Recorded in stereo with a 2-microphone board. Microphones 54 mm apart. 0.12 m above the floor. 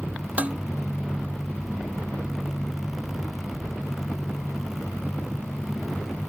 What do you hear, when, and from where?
0.4 s dishes clattering: 25° right (ahead or behind)